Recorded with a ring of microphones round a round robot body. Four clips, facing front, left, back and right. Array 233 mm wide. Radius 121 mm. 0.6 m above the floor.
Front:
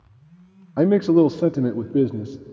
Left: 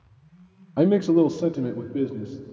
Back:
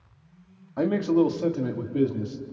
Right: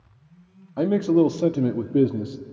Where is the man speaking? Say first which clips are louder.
Left 1 dB, front 6 dB; 30° left, 0.8 m; by 2.4 s 55° right, 1.1 m.